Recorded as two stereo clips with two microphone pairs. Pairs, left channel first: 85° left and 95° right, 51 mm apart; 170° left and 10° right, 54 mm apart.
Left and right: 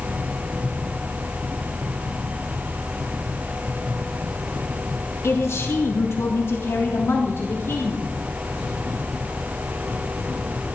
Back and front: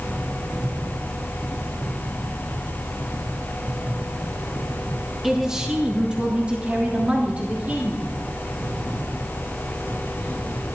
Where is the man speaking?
75° left, 2.0 m; by 8.1 s 50° left, 4 m.